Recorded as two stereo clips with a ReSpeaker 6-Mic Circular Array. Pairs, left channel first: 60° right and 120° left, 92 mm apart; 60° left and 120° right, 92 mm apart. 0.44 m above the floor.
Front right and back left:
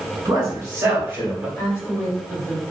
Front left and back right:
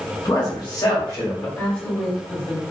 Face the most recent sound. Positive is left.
turn(degrees=-15)